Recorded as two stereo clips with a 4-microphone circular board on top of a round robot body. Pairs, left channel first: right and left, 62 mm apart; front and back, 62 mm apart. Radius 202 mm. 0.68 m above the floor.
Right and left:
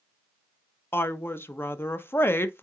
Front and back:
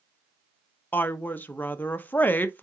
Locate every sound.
0.9 s a woman speaking: 50° right, 0.9 m